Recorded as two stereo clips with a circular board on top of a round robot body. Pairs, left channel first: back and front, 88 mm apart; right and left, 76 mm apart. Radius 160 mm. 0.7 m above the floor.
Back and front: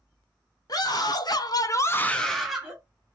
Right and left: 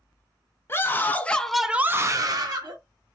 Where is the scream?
145° right, 1.2 m; by 2.8 s 80° left, 1.1 m.